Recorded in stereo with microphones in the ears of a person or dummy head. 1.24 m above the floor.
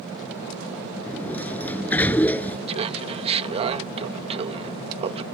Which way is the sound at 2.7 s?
35° right (ahead or behind).